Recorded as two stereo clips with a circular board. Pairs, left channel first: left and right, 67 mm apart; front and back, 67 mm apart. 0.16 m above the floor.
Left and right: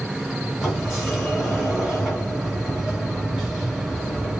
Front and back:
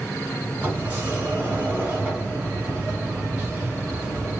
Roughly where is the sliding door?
Behind.